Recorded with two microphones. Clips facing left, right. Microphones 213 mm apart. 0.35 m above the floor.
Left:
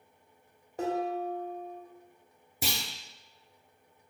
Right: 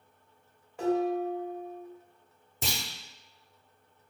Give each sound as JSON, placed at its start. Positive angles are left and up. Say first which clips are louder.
{"t": 0.8, "sound": "dishes clattering", "louder": "right 4 dB", "side_deg": 40, "distance_m": 0.9}
{"t": 2.6, "sound": "a clunk", "louder": "left 1 dB", "side_deg": 10, "distance_m": 0.7}